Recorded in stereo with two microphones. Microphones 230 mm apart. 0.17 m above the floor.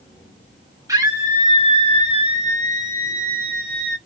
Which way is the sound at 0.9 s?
15° right (ahead or behind).